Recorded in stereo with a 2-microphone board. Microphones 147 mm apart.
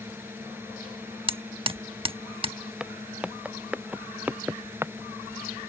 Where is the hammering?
35° right (ahead or behind).